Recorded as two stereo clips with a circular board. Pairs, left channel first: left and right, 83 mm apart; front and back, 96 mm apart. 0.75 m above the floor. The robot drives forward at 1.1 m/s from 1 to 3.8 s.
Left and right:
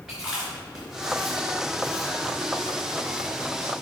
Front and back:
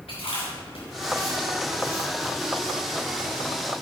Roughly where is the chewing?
Ahead.